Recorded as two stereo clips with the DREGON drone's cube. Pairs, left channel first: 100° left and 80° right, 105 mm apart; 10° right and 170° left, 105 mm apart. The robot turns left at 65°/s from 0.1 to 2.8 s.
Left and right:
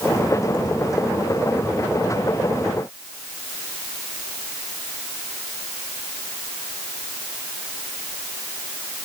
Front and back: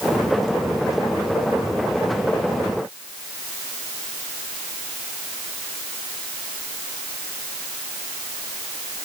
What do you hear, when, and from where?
Only background noise.